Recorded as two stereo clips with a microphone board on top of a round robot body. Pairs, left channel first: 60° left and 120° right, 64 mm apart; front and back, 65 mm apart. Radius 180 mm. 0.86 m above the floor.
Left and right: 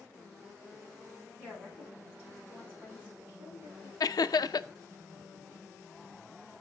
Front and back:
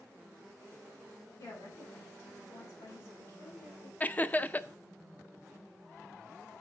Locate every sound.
1.4 s a woman speaking: 35° right, 6.5 m
4.0 s laughter: 60° left, 0.6 m